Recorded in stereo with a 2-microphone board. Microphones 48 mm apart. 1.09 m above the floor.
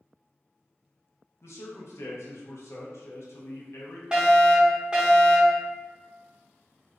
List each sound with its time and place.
1.4 s a man speaking: 65° left (ahead or behind), 0.8 m
4.1 s a fire alarm: 20° right (ahead or behind), 1.0 m